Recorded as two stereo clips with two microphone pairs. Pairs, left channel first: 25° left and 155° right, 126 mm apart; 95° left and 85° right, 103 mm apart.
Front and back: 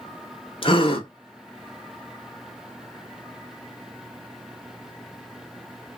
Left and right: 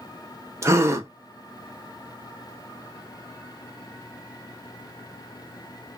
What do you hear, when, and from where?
0.6 s a gasp: 20° right, 0.8 m